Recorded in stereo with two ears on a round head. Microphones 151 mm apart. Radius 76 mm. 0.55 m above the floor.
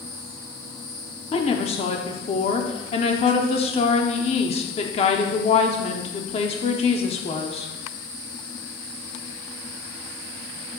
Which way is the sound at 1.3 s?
40° left (ahead or behind).